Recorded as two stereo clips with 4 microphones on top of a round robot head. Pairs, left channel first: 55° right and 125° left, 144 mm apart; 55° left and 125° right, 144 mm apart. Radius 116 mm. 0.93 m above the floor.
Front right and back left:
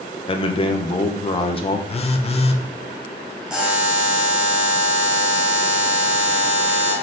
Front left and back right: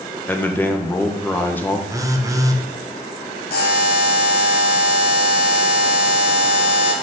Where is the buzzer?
40° left, 1.2 m.